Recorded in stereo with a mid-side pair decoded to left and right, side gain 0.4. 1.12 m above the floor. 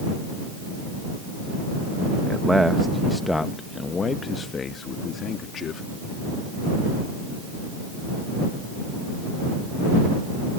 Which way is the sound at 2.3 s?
20° right.